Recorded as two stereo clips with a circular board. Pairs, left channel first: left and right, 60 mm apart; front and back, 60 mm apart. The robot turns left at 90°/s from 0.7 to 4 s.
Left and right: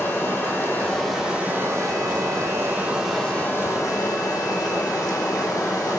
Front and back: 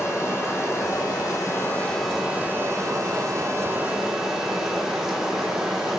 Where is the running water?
35° left, 3 m; by 6.0 s 100° left, 3 m.